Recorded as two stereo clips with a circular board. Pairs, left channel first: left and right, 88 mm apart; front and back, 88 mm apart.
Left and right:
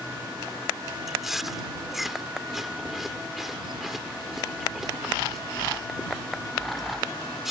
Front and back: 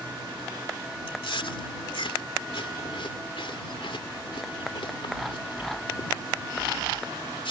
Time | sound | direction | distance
1.1 | chewing | 5° right | ?